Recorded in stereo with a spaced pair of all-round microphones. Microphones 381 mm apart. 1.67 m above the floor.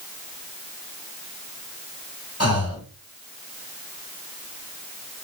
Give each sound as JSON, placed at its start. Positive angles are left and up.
{"t": 2.4, "sound": "breathing", "side_deg": 40, "distance_m": 1.1}